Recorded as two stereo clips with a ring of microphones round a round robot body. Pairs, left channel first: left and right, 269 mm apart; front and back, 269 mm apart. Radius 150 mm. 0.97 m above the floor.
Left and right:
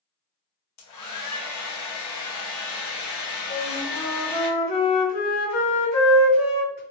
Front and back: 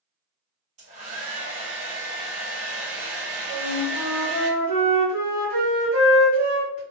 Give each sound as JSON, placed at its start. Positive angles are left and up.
{"t": 0.8, "sound": "a hair dryer", "azimuth_deg": 115, "distance_m": 0.8}
{"t": 3.5, "sound": "a flute", "azimuth_deg": 115, "distance_m": 1.8}